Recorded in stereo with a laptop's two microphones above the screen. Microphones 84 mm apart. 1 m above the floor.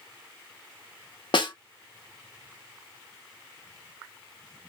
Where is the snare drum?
60° left (ahead or behind), 0.9 m.